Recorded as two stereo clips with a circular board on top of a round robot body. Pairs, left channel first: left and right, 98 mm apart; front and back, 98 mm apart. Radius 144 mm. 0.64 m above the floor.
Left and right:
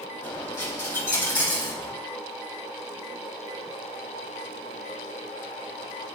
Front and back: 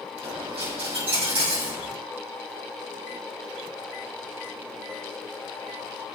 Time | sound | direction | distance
0.2 | a dropped coin | 155° left | 5.5 m